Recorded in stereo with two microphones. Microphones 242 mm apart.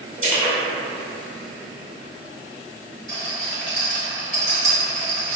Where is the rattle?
45° right (ahead or behind), 1.7 m.